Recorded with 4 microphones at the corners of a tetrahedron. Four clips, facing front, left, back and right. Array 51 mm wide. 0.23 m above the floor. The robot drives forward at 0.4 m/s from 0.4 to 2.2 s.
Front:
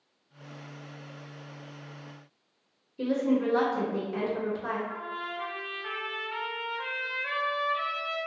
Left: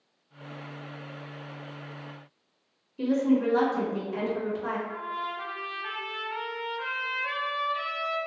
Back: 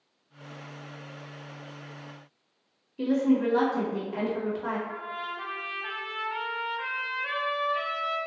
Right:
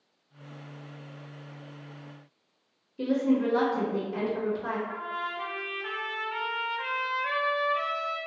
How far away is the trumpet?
About 0.7 m.